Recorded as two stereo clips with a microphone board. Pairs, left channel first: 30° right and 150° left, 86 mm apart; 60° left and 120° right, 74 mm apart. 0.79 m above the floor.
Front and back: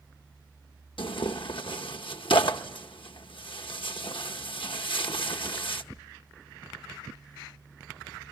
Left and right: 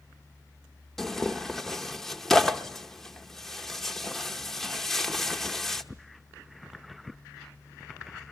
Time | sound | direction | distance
1.0 | tearing paper | 25° right | 0.9 m